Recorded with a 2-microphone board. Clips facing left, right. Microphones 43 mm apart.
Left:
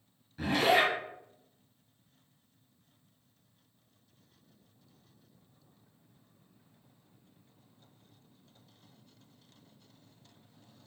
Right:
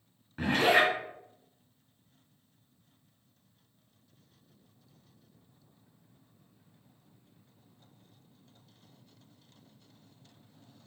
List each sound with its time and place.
0.4 s a zipper: 45° right (ahead or behind), 1.6 m